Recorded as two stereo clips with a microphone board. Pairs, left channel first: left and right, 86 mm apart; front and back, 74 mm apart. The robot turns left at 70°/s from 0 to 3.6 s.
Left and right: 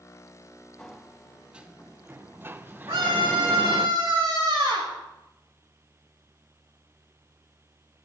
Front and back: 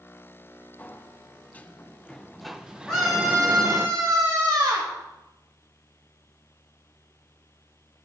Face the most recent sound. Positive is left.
turn(degrees=-130)